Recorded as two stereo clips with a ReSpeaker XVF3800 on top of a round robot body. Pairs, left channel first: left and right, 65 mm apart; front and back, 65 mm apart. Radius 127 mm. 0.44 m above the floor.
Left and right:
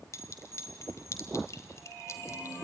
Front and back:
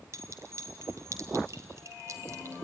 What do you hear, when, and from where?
0.1 s a clink: 135° left, 1.4 m